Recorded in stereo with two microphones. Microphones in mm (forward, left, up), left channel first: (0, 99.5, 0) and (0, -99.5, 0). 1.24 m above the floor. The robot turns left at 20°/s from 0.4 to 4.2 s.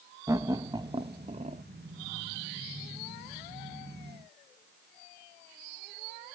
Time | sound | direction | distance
0.3 | laughter | 15° right (ahead or behind) | 0.5 m